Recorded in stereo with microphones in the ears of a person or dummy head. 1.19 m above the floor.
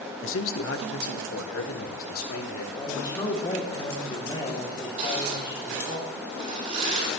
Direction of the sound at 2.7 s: 30° left (ahead or behind).